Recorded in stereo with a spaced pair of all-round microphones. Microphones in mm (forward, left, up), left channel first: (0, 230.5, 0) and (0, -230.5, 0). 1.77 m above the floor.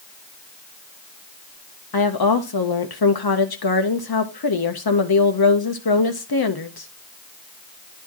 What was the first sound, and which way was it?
A woman speaking, 50° left (ahead or behind).